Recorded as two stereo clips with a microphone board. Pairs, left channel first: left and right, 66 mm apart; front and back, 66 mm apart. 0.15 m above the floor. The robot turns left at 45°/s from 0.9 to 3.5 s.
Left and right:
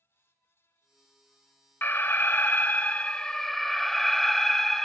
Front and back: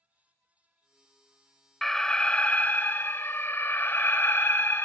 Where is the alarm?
80° left, 0.9 m; by 4.9 s 5° left, 0.9 m.